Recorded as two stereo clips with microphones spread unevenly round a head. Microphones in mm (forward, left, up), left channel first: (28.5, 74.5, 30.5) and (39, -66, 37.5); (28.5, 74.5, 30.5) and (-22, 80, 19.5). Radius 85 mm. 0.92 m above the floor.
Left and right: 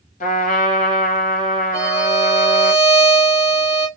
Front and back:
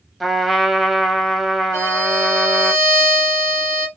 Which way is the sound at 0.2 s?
90° left.